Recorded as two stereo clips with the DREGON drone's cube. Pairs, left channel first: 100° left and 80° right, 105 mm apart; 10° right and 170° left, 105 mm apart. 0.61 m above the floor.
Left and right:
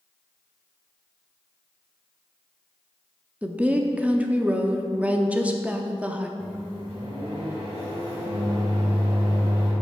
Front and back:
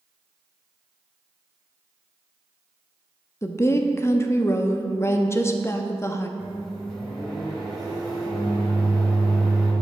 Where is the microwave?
105° right, 2.5 m.